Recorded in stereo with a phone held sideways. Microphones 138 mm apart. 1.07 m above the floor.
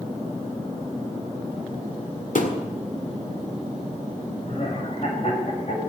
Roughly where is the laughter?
Left.